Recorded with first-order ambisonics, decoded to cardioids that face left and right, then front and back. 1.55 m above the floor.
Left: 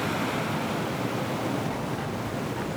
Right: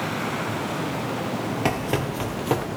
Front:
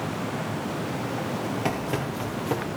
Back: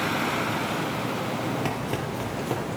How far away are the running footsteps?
About 2.5 m.